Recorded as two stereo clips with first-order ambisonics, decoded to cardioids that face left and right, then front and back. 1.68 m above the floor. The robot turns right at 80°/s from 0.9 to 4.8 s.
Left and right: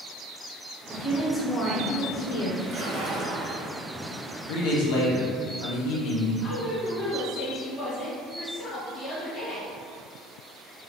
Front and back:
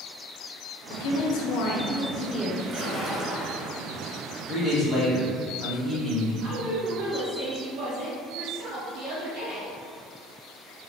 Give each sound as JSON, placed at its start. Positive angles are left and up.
{"t": 0.9, "sound": "a woman speaking", "azimuth_deg": -30, "distance_m": 0.9}
{"t": 2.6, "sound": "a splash", "azimuth_deg": -145, "distance_m": 1.1}
{"t": 4.5, "sound": "a man speaking", "azimuth_deg": 75, "distance_m": 1.5}
{"t": 6.4, "sound": "a woman speaking", "azimuth_deg": 150, "distance_m": 1.9}